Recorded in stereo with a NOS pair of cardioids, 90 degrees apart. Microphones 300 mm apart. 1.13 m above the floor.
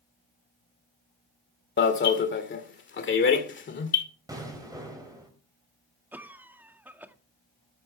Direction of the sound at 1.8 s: 40° left.